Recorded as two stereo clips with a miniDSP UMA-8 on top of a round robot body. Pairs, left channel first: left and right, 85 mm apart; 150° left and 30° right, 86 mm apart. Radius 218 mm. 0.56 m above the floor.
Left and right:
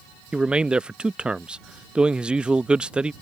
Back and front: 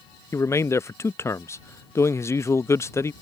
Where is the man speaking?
165° right.